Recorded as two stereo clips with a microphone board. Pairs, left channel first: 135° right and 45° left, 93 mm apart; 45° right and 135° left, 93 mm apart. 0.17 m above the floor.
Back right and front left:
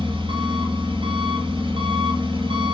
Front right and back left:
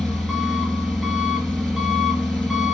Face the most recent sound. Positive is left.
turn(degrees=40)